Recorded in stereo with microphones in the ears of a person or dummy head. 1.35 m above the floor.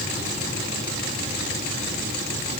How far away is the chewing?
No chewing in this recording.